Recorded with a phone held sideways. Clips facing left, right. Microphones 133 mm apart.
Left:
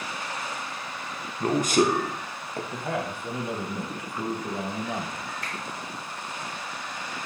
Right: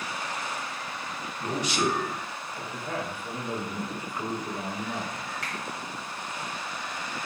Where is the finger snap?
70° right (ahead or behind), 1.2 m.